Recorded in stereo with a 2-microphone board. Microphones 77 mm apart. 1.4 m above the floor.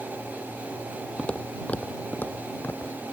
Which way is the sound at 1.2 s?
10° left (ahead or behind).